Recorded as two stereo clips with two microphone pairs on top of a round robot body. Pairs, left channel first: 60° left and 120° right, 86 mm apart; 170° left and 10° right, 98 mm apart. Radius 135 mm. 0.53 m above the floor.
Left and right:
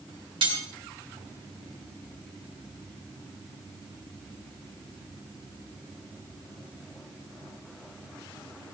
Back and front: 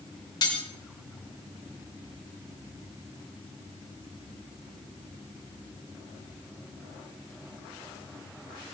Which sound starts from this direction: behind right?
Cutlery clinking, at 0.4 s.